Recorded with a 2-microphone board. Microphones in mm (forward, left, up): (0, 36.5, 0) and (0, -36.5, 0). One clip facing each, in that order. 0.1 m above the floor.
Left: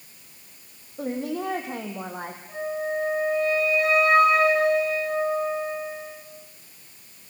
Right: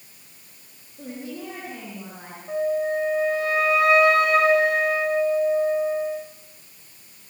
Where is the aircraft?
I don't hear an aircraft.